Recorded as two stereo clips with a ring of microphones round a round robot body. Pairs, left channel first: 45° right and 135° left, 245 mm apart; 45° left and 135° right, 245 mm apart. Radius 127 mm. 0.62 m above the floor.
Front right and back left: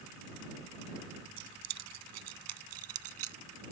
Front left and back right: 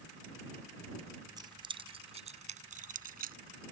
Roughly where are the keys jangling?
Behind left.